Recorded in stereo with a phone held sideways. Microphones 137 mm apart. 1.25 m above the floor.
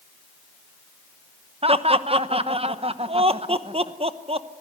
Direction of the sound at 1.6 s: 45° right (ahead or behind).